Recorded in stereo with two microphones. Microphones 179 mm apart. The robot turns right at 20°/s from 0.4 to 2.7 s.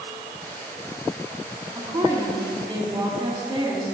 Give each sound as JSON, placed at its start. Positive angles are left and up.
{"t": 1.8, "sound": "a woman speaking", "side_deg": -20, "distance_m": 1.3}